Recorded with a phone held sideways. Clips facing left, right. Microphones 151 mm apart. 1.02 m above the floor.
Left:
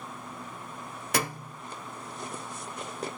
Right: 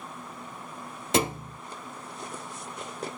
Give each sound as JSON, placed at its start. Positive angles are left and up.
{"t": 1.1, "sound": "a thud", "side_deg": -25, "distance_m": 0.7}